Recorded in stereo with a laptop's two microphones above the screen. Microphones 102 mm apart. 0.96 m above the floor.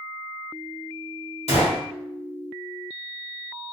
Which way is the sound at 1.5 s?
75° left (ahead or behind).